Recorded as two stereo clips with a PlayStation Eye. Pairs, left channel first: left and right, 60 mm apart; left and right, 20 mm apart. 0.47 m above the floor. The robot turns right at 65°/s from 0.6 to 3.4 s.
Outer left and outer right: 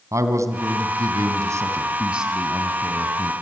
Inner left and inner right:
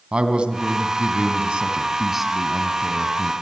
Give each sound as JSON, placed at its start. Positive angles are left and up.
{"t": 0.1, "sound": "a man speaking", "azimuth_deg": -120, "distance_m": 3.0}